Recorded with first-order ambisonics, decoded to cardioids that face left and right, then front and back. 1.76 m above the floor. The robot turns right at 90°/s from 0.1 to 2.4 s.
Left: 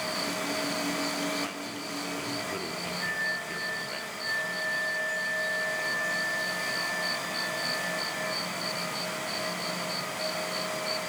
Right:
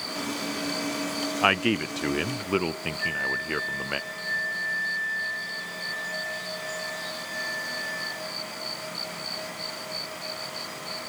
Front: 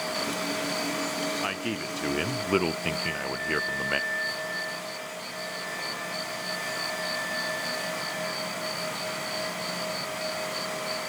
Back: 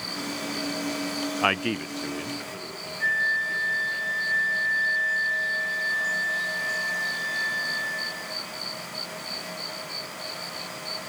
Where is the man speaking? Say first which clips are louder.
Right 12 dB, back 6 dB; 125° right, 0.7 m; by 4.0 s 35° right, 0.7 m.